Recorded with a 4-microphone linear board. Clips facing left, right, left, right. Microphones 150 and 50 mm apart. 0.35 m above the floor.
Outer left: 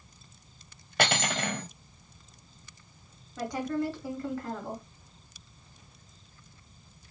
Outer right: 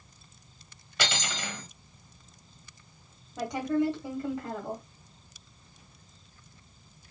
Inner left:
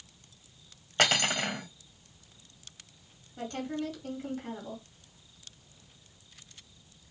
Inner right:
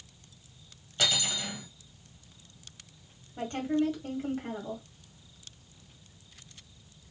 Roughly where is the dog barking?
I don't hear a dog barking.